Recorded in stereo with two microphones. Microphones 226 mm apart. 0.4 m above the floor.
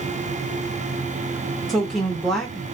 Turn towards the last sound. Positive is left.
turn(degrees=0)  # may be behind; listen again after turning